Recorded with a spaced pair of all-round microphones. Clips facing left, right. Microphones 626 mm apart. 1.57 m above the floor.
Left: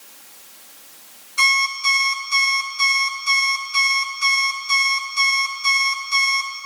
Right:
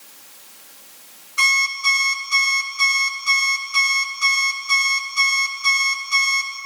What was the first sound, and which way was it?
An alarm clock, 20° left (ahead or behind).